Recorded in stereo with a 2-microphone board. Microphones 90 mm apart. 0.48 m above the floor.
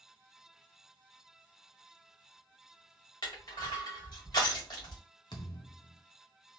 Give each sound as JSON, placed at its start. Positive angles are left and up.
{"t": 3.2, "sound": "crushing", "side_deg": 60, "distance_m": 1.9}
{"t": 5.3, "sound": "a thud", "side_deg": 60, "distance_m": 0.8}